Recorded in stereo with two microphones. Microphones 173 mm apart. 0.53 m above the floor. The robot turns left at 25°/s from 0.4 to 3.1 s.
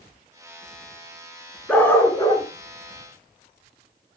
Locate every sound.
1.7 s a dog barking: 5° left (ahead or behind), 2.5 m; by 2.5 s 25° left (ahead or behind), 2.5 m